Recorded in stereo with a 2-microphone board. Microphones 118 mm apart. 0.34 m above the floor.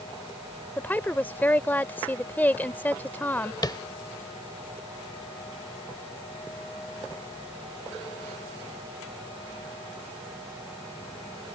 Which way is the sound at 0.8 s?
15° left (ahead or behind).